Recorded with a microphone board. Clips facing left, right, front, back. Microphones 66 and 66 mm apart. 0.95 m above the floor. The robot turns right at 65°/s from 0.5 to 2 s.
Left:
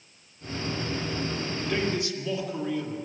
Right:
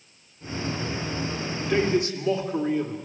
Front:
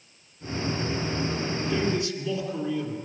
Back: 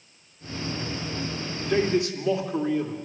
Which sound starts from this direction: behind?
A man speaking, at 1.7 s.